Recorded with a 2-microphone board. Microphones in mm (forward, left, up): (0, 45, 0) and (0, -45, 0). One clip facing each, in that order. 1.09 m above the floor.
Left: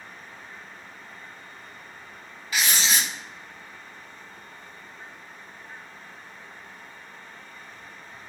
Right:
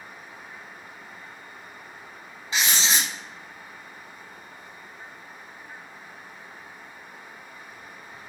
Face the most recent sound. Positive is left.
turn(degrees=-25)  # may be behind; listen again after turning